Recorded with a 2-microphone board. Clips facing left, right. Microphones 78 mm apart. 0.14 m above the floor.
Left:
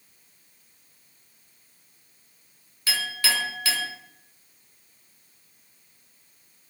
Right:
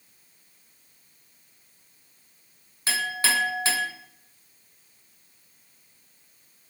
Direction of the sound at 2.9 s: 30° right (ahead or behind).